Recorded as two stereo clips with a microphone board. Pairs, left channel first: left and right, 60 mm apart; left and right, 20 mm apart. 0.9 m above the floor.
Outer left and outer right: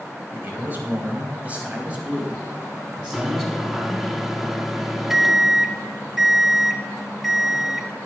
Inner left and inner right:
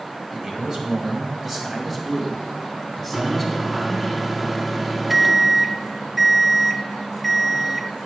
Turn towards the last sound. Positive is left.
turn(degrees=-5)  # may be behind; listen again after turning